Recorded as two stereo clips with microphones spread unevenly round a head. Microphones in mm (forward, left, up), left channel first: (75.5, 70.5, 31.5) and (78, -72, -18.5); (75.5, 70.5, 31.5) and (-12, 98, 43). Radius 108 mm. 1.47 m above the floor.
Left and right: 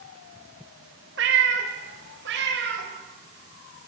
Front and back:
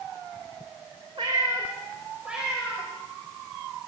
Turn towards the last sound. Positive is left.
turn(degrees=-110)